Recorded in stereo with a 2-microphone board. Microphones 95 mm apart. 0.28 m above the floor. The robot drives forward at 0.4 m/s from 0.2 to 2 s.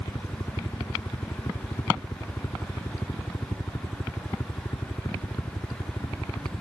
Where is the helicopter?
45° left (ahead or behind); by 6.6 s 40° left (ahead or behind).